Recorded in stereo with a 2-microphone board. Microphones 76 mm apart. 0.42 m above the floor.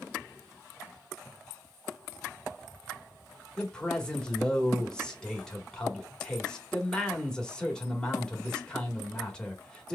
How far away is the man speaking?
About 1.5 m.